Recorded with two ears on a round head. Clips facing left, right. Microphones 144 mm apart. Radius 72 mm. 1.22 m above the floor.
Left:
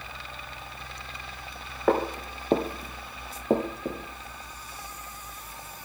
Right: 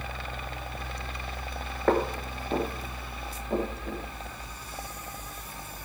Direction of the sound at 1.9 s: 5° left (ahead or behind).